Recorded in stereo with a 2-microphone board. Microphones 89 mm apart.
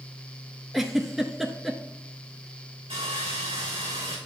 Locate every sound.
0.7 s a giggle: 5° right (ahead or behind), 0.8 m
2.9 s sawing: 85° right, 3 m